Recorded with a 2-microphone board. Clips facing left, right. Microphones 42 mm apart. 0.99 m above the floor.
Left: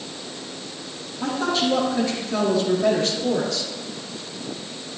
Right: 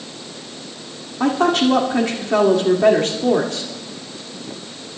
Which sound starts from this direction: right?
A woman speaking, at 1.2 s.